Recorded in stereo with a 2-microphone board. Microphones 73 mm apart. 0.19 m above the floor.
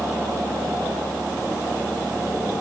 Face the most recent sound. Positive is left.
No sound to turn to.